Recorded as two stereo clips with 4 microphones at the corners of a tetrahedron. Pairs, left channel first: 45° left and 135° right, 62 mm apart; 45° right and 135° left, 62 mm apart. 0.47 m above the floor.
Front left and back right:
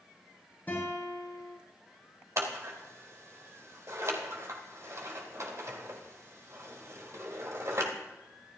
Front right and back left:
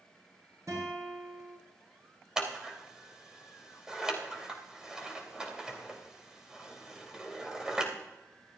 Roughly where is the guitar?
Left.